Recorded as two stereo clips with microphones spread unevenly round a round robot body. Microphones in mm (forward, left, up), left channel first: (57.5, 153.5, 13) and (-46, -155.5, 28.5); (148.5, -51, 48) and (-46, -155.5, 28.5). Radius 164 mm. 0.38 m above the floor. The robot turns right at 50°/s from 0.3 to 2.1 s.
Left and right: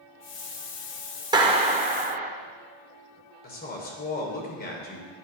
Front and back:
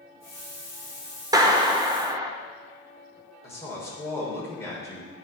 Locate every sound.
1.3 s a clap: 175° right, 0.6 m; by 2.3 s 135° right, 0.6 m
3.4 s a woman speaking: 105° left, 1.1 m